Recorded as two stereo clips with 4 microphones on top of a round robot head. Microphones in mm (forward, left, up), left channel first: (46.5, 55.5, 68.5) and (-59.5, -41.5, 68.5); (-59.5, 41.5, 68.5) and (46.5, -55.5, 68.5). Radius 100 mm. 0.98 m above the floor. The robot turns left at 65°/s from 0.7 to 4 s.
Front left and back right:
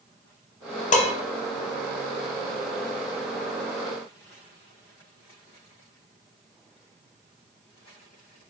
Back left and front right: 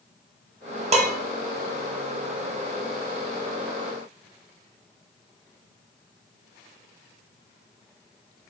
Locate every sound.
0.9 s dishes clattering: 5° left, 0.5 m; by 1.1 s 10° right, 0.5 m